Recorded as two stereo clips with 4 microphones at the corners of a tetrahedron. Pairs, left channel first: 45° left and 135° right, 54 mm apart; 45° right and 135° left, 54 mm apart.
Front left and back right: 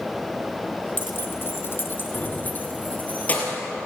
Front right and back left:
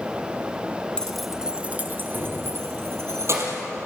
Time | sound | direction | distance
1.0 | keys jangling | 20° left | 1.2 m